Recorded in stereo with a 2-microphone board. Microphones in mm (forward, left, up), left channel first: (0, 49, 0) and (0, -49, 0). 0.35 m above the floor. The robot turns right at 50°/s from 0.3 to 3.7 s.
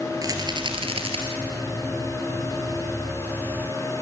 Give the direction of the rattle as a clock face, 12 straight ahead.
5 o'clock.